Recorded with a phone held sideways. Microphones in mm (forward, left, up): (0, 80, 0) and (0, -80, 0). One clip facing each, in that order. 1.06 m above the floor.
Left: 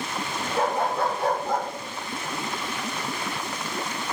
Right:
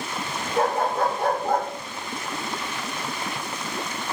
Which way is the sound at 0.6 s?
50° right (ahead or behind).